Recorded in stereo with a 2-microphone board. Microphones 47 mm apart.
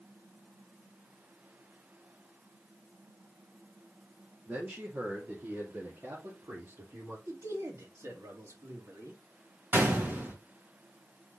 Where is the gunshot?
50° right (ahead or behind), 2.5 m.